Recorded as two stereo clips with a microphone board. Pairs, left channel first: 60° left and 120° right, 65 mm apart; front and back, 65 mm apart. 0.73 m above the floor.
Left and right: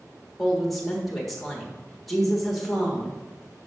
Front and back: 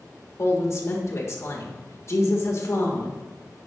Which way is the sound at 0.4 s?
30° right.